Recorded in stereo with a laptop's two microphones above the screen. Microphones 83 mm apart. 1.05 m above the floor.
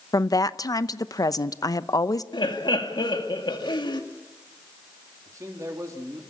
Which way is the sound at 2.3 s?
65° left (ahead or behind).